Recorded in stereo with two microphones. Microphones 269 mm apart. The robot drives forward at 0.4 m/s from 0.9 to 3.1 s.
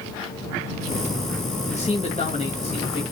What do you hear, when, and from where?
1.7 s a man speaking: 25° left (ahead or behind), 1.3 m